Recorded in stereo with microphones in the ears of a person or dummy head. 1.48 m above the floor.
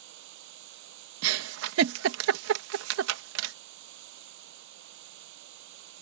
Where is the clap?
No clap in this recording.